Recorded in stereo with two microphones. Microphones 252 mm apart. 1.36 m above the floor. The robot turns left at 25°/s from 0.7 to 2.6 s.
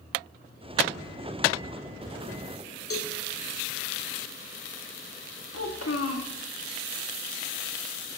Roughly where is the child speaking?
Left.